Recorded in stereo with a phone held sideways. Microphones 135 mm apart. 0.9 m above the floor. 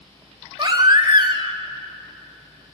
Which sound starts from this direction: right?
A baby crying, at 0.6 s.